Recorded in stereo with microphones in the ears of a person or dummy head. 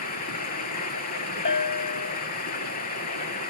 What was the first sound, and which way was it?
Running water, 45° left (ahead or behind).